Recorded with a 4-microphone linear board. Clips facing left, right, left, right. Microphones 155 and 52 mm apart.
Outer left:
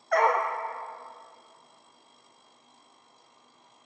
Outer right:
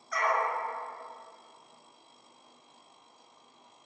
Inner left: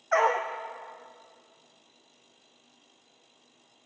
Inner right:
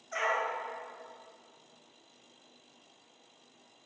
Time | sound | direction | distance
0.1 | a dog barking | 65° left (ahead or behind) | 1.8 m